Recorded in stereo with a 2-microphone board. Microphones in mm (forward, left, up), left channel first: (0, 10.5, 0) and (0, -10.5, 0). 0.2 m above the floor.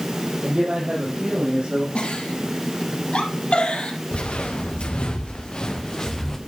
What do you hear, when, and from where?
0.4 s a man speaking: 80° right, 6 m
1.9 s a giggle: 70° left (ahead or behind), 3.5 m
4.1 s footsteps: 80° left, 3 m; by 6.4 s 20° left (ahead or behind), 2.5 m